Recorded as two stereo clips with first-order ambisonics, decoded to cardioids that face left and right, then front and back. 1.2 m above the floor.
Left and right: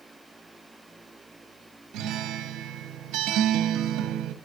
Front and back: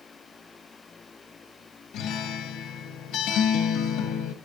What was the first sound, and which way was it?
A guitar, 45° right.